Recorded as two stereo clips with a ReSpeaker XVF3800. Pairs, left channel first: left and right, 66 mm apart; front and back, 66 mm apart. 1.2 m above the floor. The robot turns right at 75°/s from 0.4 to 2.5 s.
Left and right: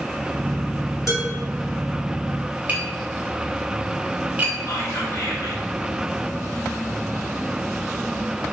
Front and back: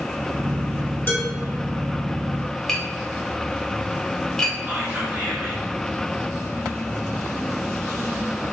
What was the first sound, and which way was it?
Dishes clattering, 55° left.